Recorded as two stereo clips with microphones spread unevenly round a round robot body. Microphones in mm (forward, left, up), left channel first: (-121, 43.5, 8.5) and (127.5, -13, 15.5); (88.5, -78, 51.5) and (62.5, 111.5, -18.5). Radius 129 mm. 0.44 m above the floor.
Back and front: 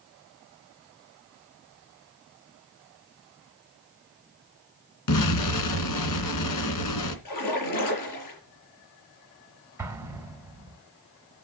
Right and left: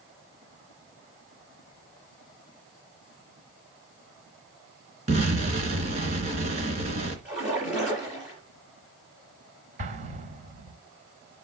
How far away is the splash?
About 5.5 m.